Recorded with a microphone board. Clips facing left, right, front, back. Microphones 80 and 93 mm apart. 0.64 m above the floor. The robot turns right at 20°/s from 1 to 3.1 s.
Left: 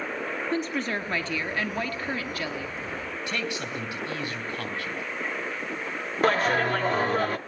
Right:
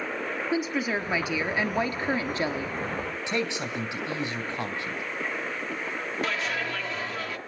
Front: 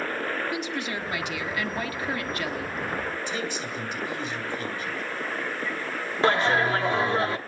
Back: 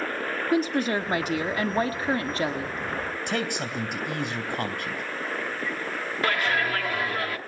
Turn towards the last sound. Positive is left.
turn(degrees=55)